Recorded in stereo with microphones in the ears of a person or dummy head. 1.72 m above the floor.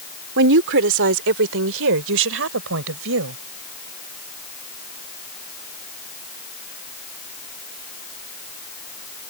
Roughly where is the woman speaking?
Right.